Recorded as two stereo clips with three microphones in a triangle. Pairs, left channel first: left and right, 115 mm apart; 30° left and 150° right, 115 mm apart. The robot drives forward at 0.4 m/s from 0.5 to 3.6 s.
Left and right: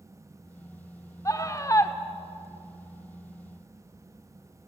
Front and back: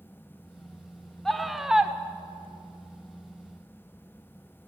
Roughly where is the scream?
Left.